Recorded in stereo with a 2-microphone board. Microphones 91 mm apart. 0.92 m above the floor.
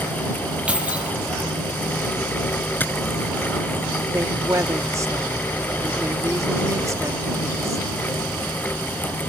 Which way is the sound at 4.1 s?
35° right (ahead or behind).